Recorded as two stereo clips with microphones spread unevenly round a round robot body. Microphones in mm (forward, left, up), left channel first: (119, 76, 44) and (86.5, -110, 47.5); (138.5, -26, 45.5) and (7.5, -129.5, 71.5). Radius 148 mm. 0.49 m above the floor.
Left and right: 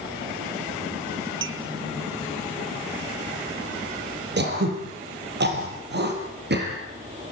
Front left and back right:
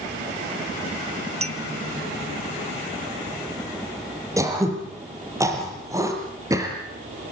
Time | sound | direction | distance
1.4 | a clink | 85° right | 1.5 m
4.4 | throat clearing | 70° right | 6.5 m